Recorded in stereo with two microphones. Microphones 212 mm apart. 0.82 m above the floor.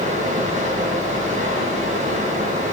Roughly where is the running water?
Right.